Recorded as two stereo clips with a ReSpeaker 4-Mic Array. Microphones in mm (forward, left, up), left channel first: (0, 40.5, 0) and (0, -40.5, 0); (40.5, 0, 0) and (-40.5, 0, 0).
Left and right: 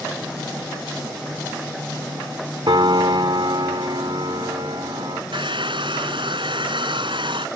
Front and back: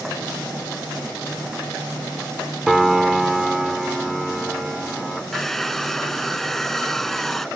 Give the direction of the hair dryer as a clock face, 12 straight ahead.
3 o'clock.